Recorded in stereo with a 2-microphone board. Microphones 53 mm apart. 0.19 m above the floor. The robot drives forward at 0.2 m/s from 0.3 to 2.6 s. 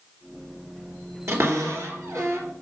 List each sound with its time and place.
1.3 s a cupboard door: 65° right (ahead or behind), 3 m